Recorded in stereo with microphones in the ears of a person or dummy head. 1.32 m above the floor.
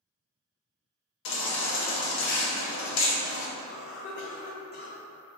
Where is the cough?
50° left (ahead or behind), 0.6 m.